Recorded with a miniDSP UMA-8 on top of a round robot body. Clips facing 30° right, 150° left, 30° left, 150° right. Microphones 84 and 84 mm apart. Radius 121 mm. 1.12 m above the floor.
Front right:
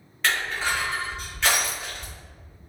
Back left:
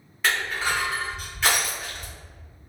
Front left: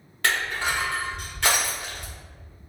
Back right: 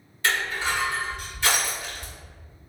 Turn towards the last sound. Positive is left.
turn(degrees=65)